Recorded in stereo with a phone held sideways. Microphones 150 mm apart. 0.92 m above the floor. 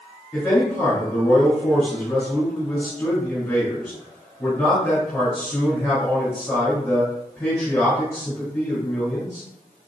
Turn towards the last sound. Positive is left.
turn(degrees=10)  # may be behind; listen again after turning